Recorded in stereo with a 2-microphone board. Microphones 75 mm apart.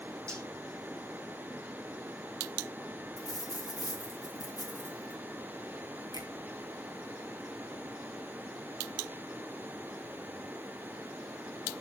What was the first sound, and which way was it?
Cutlery clinking, 40° right (ahead or behind).